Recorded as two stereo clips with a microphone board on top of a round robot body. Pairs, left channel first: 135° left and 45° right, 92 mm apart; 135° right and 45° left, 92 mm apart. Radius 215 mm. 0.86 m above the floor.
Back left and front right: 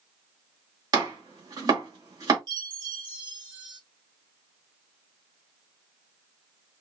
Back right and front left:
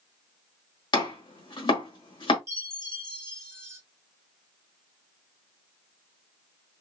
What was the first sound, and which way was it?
Chopping, 95° right.